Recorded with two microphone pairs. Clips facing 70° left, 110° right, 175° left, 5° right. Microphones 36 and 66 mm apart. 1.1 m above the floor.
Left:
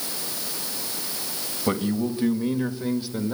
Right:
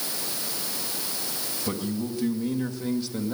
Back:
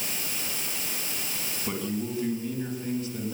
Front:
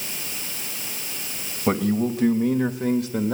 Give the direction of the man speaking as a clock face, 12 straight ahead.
11 o'clock.